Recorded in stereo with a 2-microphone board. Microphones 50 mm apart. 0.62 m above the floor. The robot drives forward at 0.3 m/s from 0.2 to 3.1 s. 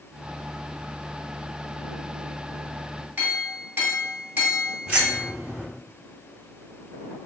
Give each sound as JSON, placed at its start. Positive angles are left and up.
{"t": 3.2, "sound": "a clink", "side_deg": -45, "distance_m": 1.7}
{"t": 4.9, "sound": "keys jangling", "side_deg": -35, "distance_m": 1.9}